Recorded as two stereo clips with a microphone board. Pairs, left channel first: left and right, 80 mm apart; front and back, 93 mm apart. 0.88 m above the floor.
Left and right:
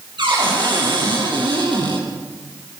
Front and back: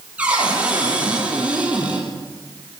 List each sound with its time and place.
0.2 s a cupboard door: 105° right, 8 m